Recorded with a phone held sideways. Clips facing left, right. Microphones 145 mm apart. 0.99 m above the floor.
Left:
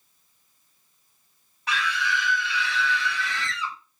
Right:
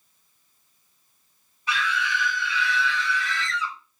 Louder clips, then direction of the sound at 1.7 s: Right 1 dB; 75° left (ahead or behind).